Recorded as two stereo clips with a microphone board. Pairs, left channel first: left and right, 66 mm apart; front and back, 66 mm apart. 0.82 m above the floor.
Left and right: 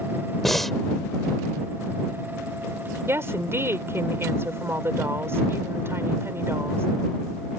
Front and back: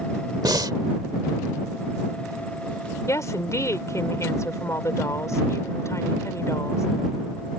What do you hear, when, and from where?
0.4 s breathing: 175° left
3.1 s a woman speaking: 40° right